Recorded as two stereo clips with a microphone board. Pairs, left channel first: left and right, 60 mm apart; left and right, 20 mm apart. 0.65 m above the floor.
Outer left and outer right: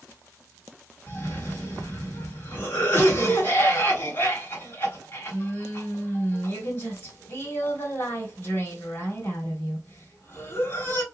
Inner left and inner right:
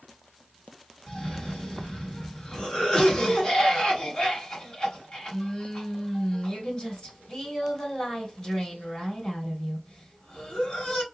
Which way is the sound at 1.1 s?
45° left (ahead or behind).